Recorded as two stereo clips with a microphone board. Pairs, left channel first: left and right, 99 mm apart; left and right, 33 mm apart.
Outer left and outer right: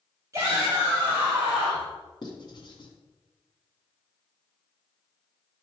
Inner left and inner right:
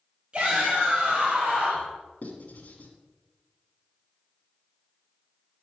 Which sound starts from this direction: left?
Writing, at 2.2 s.